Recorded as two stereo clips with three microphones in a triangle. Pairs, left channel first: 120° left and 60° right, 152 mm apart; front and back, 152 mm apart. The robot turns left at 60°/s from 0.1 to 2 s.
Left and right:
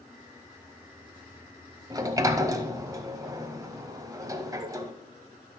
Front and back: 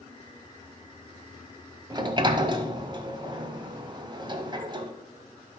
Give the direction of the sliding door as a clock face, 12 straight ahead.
4 o'clock.